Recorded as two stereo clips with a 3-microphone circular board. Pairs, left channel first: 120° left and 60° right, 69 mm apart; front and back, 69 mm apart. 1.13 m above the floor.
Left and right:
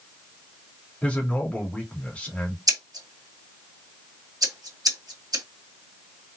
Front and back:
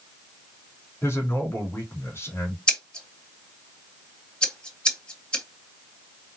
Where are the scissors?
75° right, 1.7 m.